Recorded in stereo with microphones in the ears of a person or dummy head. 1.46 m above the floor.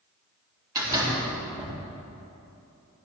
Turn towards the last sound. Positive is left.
turn(degrees=-25)  # may be behind; listen again after turning